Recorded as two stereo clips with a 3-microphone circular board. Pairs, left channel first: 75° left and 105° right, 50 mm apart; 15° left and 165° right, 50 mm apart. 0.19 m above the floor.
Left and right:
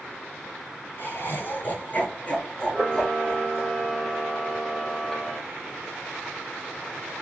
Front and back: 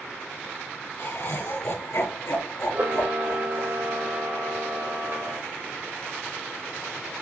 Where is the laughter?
35° left, 4.5 m; by 3.7 s 5° right, 4.5 m.